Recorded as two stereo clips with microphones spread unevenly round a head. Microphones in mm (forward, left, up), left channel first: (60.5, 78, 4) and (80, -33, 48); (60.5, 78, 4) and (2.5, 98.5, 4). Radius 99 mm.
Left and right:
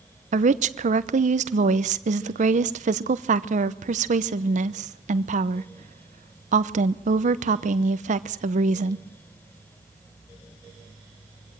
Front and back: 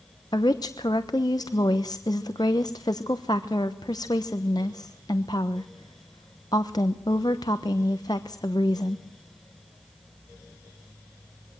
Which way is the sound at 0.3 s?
85° right.